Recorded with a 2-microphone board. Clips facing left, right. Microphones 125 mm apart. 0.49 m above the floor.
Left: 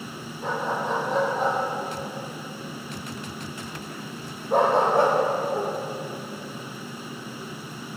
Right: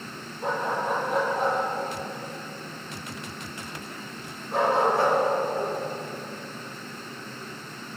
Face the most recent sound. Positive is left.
turn(degrees=65)  # may be behind; listen again after turning